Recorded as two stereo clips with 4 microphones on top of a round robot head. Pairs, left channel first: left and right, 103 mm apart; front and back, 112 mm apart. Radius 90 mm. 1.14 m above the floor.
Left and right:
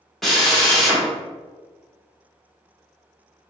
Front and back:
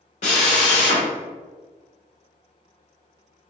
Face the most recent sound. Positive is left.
turn(degrees=0)